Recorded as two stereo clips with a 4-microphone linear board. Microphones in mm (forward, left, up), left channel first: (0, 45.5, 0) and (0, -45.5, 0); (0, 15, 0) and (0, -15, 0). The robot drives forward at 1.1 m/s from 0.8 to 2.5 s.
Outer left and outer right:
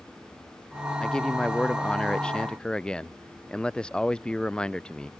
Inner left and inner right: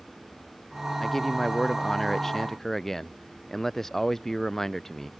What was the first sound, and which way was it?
A man speaking, 10° left (ahead or behind).